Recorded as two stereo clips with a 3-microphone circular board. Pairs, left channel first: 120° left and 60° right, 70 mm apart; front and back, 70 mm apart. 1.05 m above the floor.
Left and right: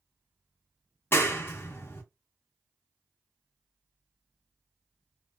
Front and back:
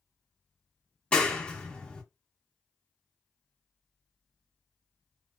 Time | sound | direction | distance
1.1 | a clap | 75° left | 0.7 m